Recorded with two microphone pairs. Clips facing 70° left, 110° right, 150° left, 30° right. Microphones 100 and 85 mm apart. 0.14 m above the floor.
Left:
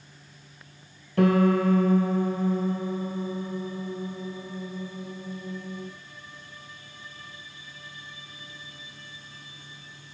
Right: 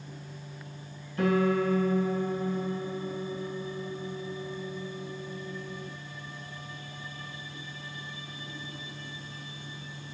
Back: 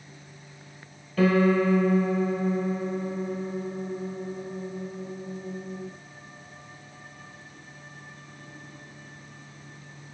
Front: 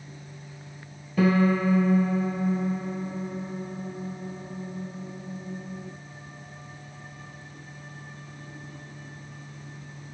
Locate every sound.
1.2 s a piano: 45° left, 1.1 m